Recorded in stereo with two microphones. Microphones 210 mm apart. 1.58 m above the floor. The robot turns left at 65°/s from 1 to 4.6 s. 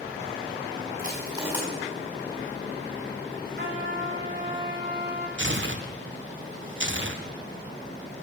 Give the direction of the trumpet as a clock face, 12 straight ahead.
2 o'clock.